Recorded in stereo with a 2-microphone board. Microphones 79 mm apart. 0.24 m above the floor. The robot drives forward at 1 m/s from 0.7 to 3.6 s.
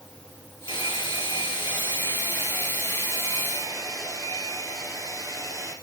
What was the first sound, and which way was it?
A hair dryer, 80° left.